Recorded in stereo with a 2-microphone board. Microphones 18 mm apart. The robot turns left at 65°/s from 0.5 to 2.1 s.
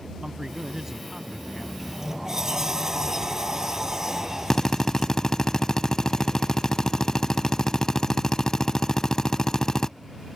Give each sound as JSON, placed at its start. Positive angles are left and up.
{"t": 0.2, "sound": "a man speaking", "azimuth_deg": -120}
{"t": 1.8, "sound": "a sliding door", "side_deg": -5}
{"t": 4.5, "sound": "a drill", "side_deg": 30}